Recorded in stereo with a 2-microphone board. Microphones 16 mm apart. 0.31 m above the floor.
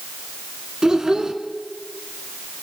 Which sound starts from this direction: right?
A child speaking, at 0.8 s.